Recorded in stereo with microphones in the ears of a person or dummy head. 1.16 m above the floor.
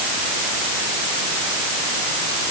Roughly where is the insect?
I don't hear an insect.